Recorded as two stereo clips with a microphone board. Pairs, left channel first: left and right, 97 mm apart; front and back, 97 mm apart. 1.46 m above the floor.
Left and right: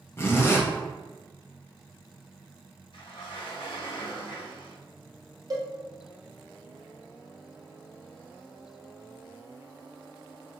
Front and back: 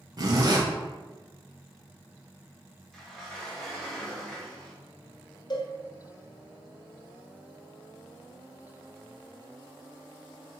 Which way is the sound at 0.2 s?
145° left.